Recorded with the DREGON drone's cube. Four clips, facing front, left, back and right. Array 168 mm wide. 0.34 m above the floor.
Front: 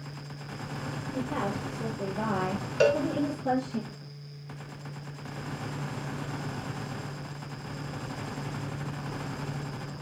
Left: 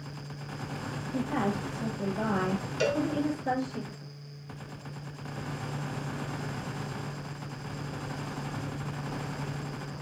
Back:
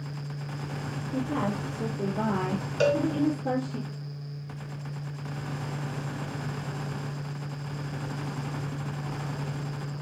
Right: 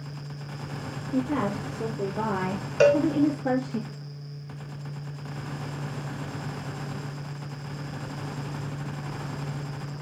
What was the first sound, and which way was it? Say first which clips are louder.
A woman speaking: right 4 dB, back 3 dB; 105° right.